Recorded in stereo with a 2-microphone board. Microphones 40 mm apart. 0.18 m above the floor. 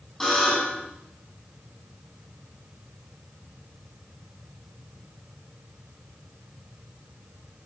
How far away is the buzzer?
About 7 m.